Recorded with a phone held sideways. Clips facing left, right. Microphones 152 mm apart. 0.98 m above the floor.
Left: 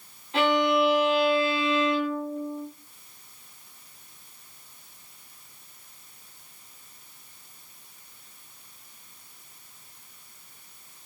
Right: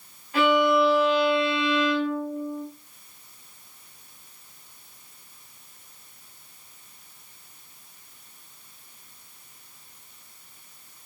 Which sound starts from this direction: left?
A violin, at 0.3 s.